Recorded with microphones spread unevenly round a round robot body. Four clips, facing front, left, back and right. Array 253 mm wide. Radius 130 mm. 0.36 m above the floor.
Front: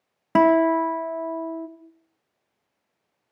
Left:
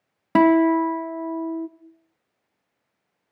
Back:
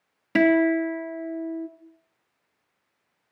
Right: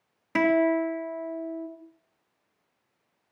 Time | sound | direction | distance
0.3 | a guitar | 60° left | 1.5 m